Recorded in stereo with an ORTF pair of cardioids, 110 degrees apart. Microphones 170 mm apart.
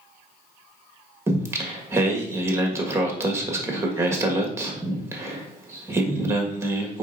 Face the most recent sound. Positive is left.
turn(degrees=-15)